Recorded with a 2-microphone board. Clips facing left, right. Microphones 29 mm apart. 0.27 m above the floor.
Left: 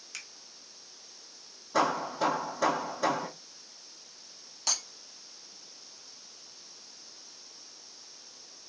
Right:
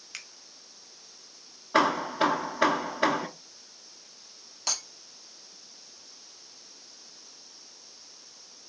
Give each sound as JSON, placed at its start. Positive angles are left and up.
{"t": 0.1, "sound": "a finger snap", "side_deg": -30, "distance_m": 1.0}
{"t": 1.7, "sound": "hammering", "side_deg": -65, "distance_m": 0.8}
{"t": 4.7, "sound": "breaking glass", "side_deg": -10, "distance_m": 2.5}